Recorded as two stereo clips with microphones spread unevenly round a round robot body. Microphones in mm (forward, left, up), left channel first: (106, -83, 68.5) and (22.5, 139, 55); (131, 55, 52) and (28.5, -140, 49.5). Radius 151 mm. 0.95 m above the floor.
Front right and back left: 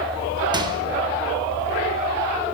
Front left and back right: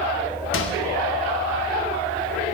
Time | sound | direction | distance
0.5 | a microwave | 40° left | 3.5 m